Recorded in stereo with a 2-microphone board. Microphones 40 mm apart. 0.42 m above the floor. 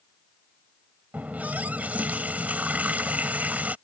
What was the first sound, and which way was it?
A running tap, 40° right (ahead or behind).